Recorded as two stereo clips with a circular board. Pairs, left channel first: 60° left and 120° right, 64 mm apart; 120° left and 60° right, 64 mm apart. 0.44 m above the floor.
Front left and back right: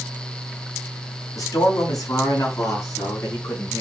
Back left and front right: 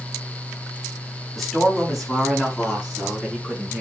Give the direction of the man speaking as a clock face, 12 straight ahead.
11 o'clock.